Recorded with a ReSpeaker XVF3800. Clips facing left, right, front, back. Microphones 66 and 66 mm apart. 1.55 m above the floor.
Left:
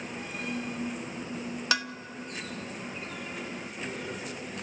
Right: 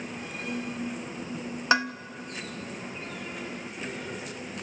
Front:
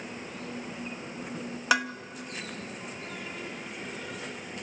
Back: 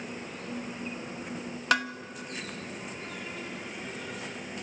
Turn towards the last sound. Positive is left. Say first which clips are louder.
# right 7 dB, front 1 dB
turn(degrees=-80)